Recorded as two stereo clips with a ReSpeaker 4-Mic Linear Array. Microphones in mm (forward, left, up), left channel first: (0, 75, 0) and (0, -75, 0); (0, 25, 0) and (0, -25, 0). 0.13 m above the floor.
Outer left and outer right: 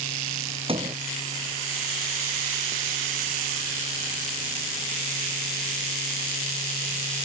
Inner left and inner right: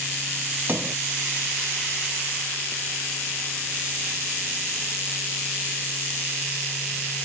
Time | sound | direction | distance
0.7 | a sliding door | 35° right (ahead or behind) | ?